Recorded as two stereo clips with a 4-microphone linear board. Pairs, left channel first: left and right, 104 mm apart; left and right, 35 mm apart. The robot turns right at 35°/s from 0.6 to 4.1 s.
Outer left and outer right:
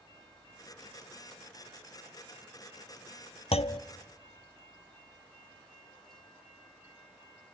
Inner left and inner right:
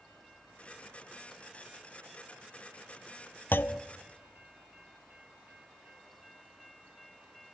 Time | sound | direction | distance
3.5 | a clunk | 75° left (ahead or behind) | 0.5 m